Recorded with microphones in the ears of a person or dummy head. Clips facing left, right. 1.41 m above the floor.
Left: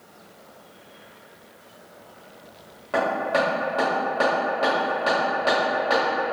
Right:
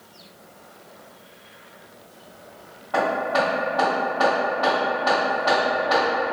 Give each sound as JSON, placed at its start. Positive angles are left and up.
{"t": 2.9, "sound": "hammering", "side_deg": 25, "distance_m": 0.9}